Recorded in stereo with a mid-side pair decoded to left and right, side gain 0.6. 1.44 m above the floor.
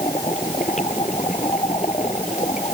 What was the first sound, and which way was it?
Only background noise.